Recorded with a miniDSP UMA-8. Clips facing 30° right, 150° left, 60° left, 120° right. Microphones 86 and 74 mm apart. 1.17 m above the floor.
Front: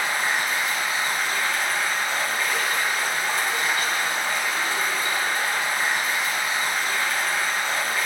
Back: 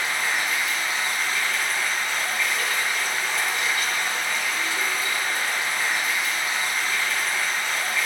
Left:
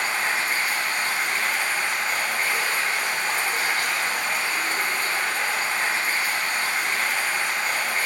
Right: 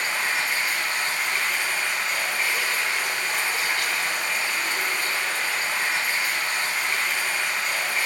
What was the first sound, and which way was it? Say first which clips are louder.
Running water: front 2 dB, left 1 dB; 10° left.